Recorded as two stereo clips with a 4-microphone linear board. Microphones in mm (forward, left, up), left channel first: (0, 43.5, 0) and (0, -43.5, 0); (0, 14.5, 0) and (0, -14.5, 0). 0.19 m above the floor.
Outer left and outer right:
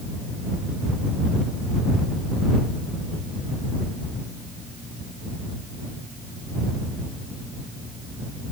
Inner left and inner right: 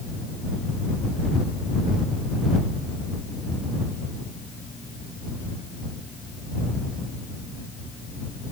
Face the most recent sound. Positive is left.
No sound to turn to.